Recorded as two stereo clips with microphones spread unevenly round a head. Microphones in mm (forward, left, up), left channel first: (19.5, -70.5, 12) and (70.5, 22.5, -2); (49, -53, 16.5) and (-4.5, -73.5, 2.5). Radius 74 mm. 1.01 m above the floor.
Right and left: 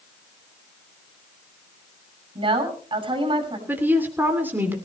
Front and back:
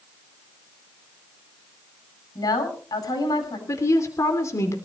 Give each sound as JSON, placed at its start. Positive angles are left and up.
{"t": 2.4, "sound": "a woman speaking", "azimuth_deg": 20, "distance_m": 7.0}
{"t": 3.7, "sound": "a woman speaking", "azimuth_deg": -10, "distance_m": 3.0}